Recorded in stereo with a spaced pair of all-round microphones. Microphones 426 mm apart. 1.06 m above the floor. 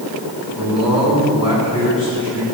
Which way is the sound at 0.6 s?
10° right (ahead or behind).